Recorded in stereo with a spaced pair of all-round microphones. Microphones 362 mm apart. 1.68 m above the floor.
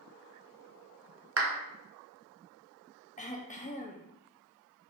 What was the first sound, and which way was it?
A clap, 40° right (ahead or behind).